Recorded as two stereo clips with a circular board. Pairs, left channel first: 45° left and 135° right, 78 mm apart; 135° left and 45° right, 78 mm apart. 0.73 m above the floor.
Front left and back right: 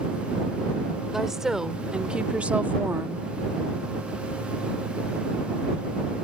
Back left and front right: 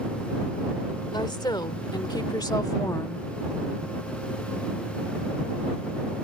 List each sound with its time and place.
1.1 s a woman speaking: 140° left; by 3.3 s 175° right